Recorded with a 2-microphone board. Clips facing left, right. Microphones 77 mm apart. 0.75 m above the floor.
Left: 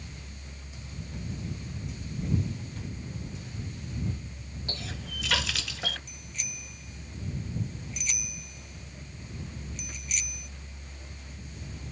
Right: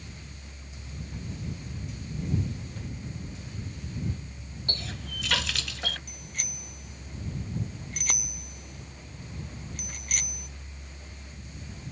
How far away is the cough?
I don't hear a cough.